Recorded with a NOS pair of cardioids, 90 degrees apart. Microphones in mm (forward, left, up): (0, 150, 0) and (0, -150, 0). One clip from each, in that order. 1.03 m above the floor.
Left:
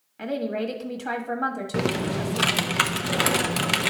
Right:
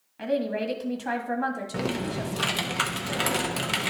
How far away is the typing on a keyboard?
About 0.6 m.